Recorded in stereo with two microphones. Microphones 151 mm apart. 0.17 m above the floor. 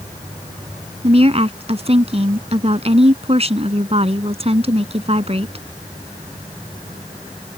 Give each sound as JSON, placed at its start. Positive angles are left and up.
{"t": 1.0, "sound": "a woman speaking", "side_deg": -45}